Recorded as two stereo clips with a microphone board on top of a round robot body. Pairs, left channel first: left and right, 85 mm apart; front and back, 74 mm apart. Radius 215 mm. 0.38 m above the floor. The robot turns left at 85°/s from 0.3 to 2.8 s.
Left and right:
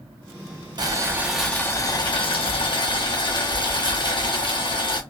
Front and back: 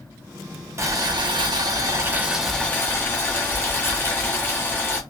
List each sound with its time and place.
0.8 s boiling: 130° right, 0.8 m; by 5.0 s 60° left, 0.8 m